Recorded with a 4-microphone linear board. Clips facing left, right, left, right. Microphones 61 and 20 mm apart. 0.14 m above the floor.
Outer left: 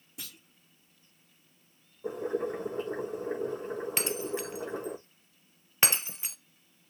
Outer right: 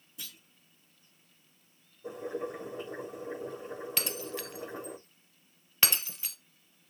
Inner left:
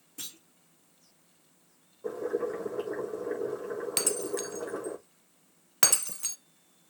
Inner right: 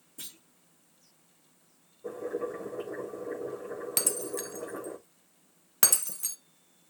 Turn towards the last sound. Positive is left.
turn(degrees=25)  # may be behind; listen again after turning